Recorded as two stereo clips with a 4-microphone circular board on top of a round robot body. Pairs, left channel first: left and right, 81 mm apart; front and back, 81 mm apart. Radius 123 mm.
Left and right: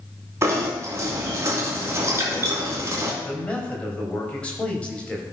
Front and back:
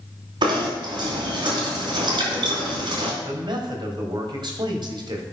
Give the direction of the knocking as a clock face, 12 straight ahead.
5 o'clock.